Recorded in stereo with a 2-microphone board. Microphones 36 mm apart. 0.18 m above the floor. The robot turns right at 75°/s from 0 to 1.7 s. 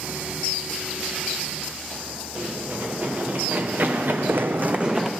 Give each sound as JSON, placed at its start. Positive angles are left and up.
{"t": 2.4, "sound": "running footsteps", "side_deg": -40, "distance_m": 3.0}